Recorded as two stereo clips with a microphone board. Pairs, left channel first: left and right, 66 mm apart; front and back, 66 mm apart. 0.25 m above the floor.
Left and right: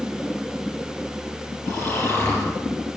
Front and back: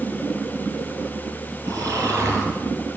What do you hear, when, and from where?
1.6 s snoring: 135° left, 5.5 m